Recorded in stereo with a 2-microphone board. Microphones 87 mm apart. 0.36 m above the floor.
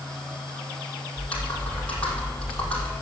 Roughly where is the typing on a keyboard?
Centre.